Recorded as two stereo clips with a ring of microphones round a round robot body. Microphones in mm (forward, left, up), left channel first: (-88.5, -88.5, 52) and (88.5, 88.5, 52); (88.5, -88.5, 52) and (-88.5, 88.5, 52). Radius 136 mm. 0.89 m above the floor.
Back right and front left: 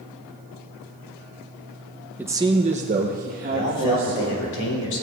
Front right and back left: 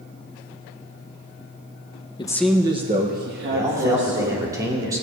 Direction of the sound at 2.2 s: 25° right.